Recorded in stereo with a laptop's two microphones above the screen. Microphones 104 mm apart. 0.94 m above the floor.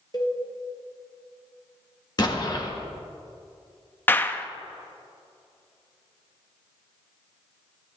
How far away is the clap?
About 0.6 m.